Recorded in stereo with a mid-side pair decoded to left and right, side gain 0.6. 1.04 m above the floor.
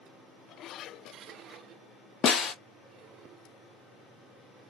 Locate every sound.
2.2 s a snare drum: 45° left, 0.6 m